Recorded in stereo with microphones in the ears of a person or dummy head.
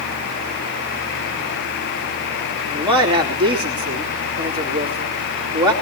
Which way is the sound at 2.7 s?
20° right (ahead or behind).